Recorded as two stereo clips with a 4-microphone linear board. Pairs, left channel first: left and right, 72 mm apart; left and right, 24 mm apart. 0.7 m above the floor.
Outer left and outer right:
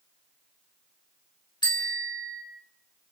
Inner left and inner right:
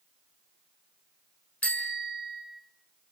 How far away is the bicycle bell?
About 5.5 m.